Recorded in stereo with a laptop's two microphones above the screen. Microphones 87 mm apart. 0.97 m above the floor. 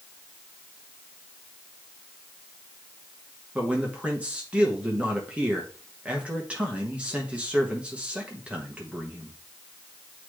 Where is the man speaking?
15° right (ahead or behind), 1.2 m.